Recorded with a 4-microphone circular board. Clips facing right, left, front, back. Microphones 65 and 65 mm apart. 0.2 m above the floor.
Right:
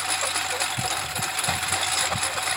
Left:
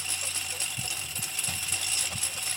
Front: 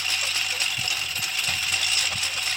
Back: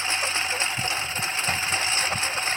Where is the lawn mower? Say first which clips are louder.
Right 11 dB, back 3 dB; 120° right.